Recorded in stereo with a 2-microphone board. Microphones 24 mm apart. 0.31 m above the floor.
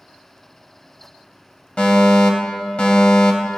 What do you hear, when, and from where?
1.8 s a fire alarm: 45° left (ahead or behind), 2.5 m